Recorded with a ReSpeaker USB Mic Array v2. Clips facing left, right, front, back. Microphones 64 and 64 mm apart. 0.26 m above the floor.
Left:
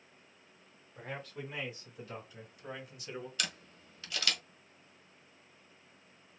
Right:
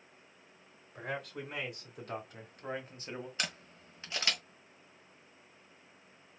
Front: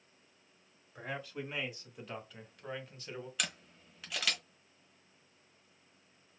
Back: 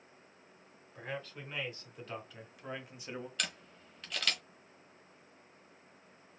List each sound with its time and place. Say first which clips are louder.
0.9 s a man speaking: right 3 dB, front 1 dB; 75° right, 2.5 m; by 3.3 s 140° right, 1.1 m
3.4 s a camera shutter: right 1 dB, even; 75° right, 1.1 m